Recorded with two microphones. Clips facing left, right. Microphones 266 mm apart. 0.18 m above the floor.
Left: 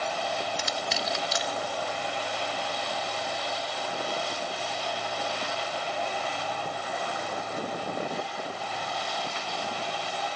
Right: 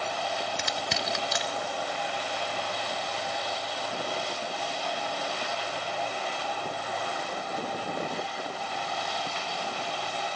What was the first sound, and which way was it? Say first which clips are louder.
Crushing: left 1 dB; 60° right (ahead or behind).